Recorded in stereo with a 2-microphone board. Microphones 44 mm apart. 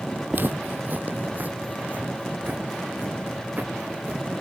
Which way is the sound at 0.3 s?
45° right (ahead or behind).